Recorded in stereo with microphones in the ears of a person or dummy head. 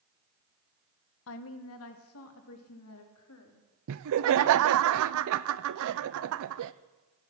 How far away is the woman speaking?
About 1.1 m.